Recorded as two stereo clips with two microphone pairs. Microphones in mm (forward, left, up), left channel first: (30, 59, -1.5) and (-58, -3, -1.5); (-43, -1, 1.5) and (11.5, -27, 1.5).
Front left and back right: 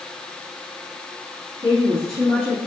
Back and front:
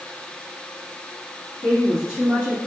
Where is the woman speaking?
170° right, 2 m.